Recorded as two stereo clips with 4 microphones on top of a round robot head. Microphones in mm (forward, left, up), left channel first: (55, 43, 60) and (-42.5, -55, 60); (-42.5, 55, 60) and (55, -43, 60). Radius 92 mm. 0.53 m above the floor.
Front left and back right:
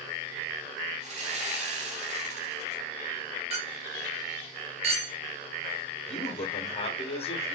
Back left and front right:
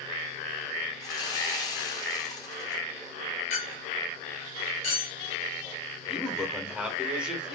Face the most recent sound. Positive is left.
turn(degrees=35)